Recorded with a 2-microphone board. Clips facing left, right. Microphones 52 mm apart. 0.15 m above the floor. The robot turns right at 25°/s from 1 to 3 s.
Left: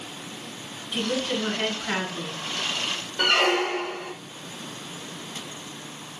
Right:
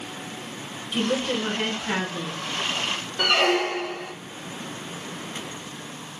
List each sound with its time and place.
0.9 s a woman speaking: 15° right, 2 m; by 2.4 s 20° left, 2 m
3.2 s a squeak: centre (ahead or behind), 1.0 m